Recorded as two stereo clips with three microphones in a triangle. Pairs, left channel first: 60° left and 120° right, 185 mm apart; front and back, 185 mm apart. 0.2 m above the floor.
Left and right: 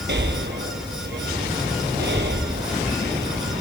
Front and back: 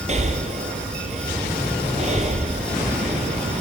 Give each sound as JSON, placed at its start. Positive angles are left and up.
{"t": 0.1, "sound": "breathing", "azimuth_deg": -130, "distance_m": 1.3}